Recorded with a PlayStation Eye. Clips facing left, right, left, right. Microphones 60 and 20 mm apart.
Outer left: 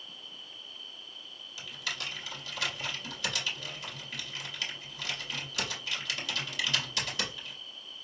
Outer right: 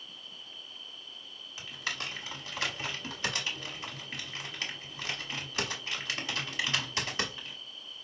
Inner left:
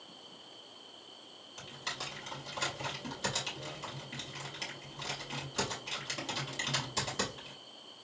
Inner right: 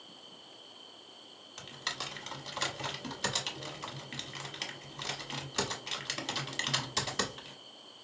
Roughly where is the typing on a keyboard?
Right.